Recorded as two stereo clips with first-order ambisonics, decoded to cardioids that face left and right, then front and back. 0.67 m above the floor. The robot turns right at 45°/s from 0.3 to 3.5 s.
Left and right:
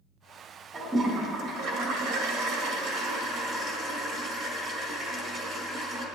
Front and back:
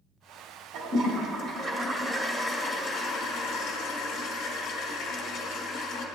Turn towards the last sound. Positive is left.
turn(degrees=-45)